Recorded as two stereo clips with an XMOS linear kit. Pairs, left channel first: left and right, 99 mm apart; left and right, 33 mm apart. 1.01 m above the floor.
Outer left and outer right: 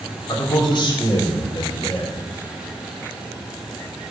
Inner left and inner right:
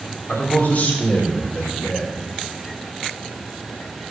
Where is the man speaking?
50° left (ahead or behind), 3 m.